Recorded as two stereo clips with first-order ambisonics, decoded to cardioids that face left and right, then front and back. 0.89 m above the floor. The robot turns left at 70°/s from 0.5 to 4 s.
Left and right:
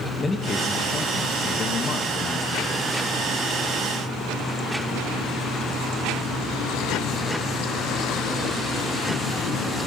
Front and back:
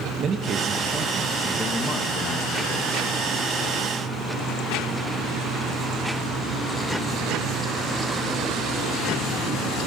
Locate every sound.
0.2 s a man speaking: 155° left, 0.8 m; by 3.1 s 25° right, 0.8 m